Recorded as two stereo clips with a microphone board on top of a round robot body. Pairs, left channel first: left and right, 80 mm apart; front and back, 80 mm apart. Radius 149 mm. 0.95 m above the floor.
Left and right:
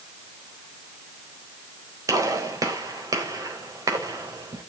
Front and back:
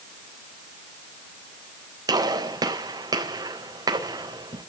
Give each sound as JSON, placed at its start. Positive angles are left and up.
{"t": 2.1, "sound": "a gunshot", "azimuth_deg": -135, "distance_m": 4.0}